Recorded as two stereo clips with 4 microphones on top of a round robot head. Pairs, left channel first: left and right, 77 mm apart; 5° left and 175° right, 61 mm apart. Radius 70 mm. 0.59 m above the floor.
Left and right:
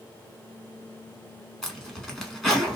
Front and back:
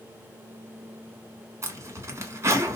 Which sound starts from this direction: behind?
A zipper, at 1.6 s.